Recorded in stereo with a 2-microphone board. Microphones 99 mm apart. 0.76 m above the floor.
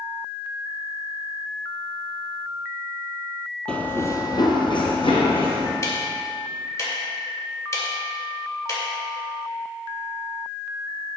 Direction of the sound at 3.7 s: 10° left (ahead or behind).